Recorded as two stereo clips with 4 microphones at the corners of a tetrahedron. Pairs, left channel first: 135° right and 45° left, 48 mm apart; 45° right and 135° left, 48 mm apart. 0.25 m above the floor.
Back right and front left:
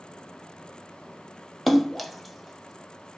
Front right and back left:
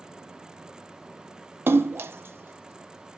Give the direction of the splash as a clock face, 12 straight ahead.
7 o'clock.